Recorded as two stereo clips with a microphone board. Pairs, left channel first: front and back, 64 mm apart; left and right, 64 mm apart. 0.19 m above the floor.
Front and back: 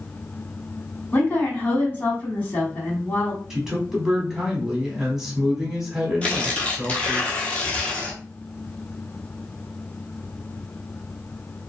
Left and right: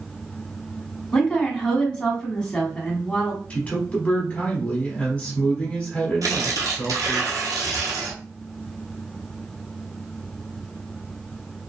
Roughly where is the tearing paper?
Right.